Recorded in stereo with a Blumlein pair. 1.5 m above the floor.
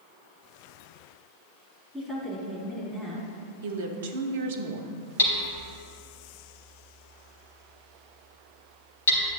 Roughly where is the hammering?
Ahead left.